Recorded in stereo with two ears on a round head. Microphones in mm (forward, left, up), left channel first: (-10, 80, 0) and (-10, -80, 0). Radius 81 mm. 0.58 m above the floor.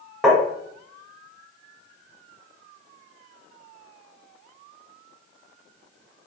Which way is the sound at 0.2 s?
Centre (ahead or behind).